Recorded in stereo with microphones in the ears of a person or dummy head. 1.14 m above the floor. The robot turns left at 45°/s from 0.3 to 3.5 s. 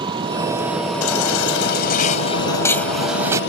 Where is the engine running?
150° right; by 3.5 s 65° left.